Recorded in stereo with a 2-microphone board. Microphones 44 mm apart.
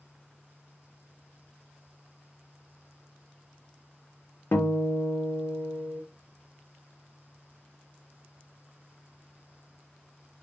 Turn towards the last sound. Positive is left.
turn(degrees=70)  # may be behind; listen again after turning